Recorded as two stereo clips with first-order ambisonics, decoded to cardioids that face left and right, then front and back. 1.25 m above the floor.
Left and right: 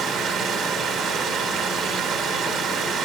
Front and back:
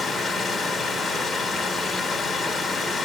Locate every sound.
0.0 s running water: 80° right, 1.1 m